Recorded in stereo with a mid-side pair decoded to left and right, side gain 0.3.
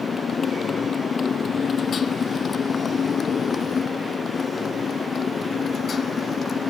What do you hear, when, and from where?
0.0 s a motorcycle: 65° left; by 6.7 s 60° left